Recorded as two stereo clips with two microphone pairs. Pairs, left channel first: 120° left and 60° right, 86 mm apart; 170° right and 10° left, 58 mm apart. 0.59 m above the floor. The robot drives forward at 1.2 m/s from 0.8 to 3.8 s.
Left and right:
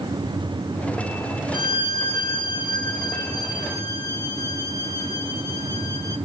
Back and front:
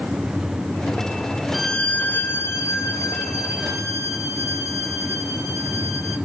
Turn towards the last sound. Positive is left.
turn(degrees=165)